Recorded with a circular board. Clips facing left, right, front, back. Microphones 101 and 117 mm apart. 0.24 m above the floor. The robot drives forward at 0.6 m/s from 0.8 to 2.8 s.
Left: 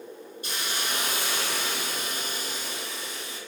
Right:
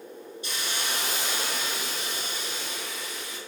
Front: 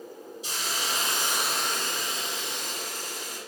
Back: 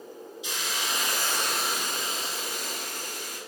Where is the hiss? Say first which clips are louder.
Left 1 dB, even; 50° left, 0.7 m; by 3.4 s 145° left, 0.9 m.